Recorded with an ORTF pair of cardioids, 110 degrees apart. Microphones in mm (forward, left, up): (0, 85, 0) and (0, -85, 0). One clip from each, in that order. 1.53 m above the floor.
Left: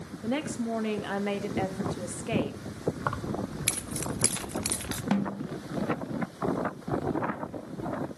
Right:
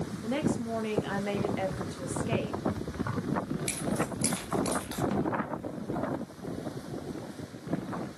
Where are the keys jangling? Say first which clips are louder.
Left 1 dB; 55° left, 2 m.